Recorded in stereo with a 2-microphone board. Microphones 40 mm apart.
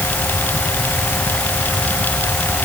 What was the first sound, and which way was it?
Only background noise.